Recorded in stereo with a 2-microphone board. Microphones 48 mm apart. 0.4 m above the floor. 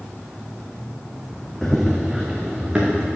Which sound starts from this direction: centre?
Running footsteps, at 1.6 s.